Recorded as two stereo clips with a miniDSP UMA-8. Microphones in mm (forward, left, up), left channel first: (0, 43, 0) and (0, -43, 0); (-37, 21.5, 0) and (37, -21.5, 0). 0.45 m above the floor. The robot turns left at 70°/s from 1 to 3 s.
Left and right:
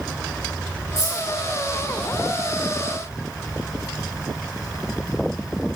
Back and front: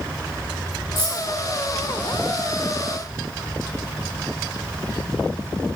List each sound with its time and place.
1.0 s keys jangling: 90° right, 1.6 m; by 1.3 s 110° right, 1.6 m